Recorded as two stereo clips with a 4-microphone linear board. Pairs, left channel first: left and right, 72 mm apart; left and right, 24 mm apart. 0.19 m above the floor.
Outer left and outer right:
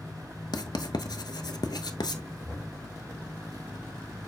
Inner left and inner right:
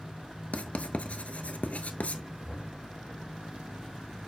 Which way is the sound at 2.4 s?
15° left (ahead or behind).